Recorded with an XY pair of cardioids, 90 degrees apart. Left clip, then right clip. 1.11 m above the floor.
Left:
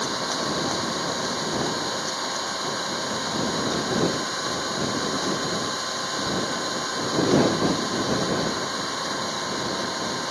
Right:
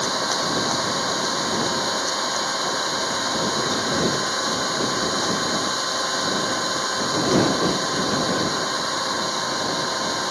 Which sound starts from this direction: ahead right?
An engine running, at 0.0 s.